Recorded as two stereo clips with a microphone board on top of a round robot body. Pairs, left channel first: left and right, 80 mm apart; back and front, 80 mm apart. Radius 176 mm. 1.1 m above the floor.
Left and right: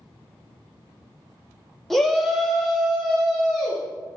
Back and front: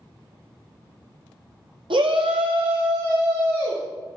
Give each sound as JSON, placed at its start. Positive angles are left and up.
{"t": 1.9, "sound": "a shout", "azimuth_deg": 0, "distance_m": 1.0}